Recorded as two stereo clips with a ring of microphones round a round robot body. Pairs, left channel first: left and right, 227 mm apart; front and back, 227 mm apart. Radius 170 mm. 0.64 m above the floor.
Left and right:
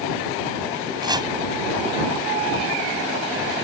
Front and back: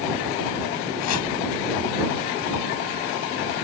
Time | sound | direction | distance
1.0 | chopping | 15° right | ?